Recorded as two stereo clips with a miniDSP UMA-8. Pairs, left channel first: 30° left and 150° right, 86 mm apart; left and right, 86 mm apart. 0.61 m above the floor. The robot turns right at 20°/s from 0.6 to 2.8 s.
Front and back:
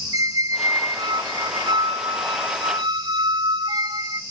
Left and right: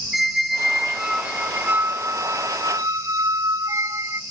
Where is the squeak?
175° right, 0.7 m; by 4.2 s 135° right, 0.7 m.